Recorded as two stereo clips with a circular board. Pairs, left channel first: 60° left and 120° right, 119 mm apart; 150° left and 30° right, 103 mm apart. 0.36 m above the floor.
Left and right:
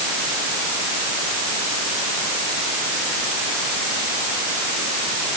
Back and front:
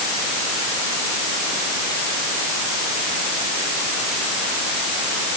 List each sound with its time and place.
Only background noise.